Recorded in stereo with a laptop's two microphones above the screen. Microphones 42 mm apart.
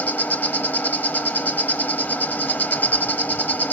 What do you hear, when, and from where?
0.0 s an insect: 45° left (ahead or behind), 1.2 m